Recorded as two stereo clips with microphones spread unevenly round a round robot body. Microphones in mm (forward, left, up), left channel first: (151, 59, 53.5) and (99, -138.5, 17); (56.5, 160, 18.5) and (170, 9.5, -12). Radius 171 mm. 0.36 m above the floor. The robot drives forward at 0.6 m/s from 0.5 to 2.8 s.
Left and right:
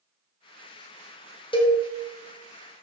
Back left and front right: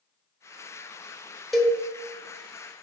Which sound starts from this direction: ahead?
A cowbell, at 1.5 s.